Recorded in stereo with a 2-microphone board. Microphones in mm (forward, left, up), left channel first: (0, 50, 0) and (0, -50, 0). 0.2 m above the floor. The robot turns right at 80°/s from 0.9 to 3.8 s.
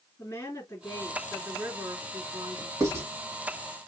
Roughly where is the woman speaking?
Behind left.